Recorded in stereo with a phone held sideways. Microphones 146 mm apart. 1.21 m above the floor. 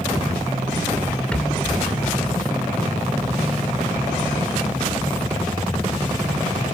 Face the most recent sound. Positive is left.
turn(degrees=10)  # may be behind; listen again after turning